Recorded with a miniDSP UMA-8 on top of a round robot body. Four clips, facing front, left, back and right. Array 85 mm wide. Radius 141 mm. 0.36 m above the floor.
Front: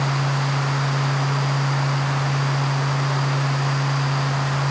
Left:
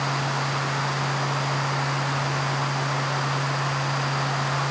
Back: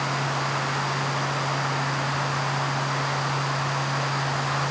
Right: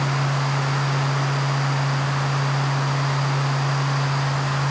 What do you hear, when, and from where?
Only background noise.